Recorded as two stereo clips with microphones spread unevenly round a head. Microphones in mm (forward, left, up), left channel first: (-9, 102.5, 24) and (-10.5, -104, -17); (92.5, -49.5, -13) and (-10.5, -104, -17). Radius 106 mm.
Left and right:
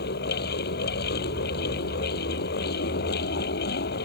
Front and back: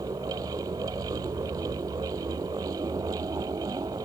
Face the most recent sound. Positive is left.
turn(degrees=135)